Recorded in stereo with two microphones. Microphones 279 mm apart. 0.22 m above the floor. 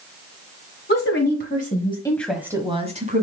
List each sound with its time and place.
0.9 s a woman speaking: 45° left (ahead or behind), 2 m; by 3.2 s 30° right (ahead or behind), 2.0 m